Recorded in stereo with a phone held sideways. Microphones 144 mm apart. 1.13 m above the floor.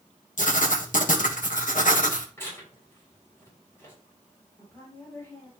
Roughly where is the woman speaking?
Centre.